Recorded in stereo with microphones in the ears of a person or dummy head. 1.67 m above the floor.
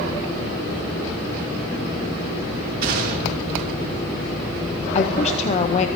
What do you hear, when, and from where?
2.8 s a gunshot: 65° right (ahead or behind), 3.5 m
5.0 s a woman speaking: 40° left (ahead or behind), 0.8 m